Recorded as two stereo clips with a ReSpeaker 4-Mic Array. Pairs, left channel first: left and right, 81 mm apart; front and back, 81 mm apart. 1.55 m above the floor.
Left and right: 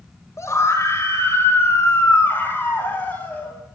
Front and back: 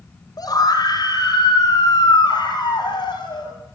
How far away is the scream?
About 6.5 m.